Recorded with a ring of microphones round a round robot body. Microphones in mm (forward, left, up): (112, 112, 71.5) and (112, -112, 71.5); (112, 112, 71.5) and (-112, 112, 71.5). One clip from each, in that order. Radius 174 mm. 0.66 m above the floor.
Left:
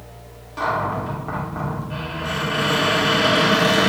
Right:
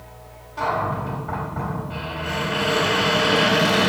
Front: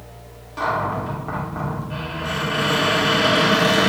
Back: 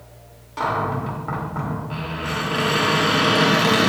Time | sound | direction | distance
0.6 | a cupboard door | 120° left | 2 m